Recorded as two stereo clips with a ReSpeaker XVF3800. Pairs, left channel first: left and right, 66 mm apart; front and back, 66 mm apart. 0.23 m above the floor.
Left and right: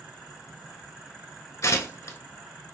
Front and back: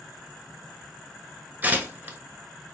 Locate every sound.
1.6 s tearing paper: 120° left, 1.0 m